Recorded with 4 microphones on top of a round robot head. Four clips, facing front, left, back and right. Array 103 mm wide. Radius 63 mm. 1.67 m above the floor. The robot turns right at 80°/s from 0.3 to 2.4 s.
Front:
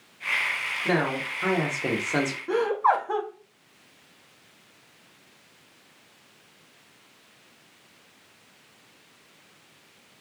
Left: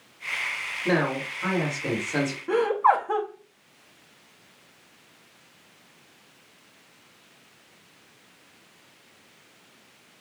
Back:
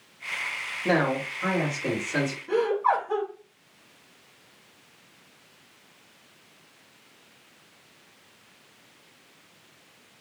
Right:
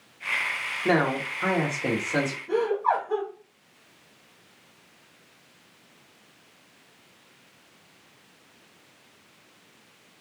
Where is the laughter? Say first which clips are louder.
Left 4 dB, front 1 dB; 60° left, 0.7 m.